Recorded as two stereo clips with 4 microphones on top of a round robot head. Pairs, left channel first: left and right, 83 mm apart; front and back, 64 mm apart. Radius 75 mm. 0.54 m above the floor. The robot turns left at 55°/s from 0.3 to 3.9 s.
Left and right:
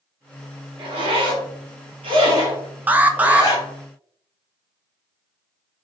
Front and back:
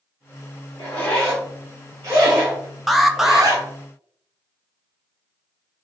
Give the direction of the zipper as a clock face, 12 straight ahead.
2 o'clock.